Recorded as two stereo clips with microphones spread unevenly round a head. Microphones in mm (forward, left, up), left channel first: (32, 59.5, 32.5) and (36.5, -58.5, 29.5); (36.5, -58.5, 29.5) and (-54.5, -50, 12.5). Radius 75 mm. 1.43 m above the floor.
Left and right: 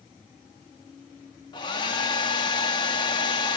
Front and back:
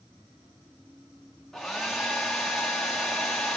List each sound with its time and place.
1.5 s a hair dryer: 65° left, 1.0 m